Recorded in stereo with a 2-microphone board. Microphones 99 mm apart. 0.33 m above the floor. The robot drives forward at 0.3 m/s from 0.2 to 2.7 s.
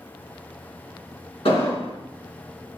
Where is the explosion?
70° left (ahead or behind), 4 m.